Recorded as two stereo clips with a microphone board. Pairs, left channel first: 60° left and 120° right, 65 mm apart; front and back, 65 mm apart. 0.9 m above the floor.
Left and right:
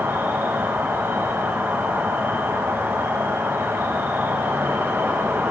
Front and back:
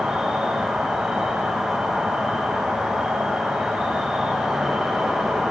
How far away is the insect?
About 1.2 m.